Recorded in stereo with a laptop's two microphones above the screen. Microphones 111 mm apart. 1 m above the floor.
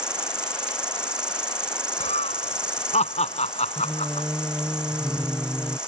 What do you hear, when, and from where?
0.0 s an insect: 10° right (ahead or behind)
2.0 s laughter: 85° left
3.8 s singing: 15° right (ahead or behind)